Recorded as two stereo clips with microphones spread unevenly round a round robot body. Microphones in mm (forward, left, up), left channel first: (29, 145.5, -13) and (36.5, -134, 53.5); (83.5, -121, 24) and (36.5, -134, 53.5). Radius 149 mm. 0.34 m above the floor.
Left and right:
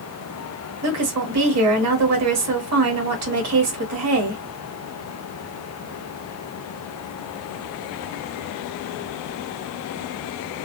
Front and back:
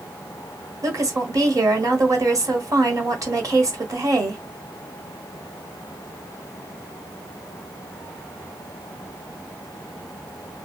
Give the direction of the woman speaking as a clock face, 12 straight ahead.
4 o'clock.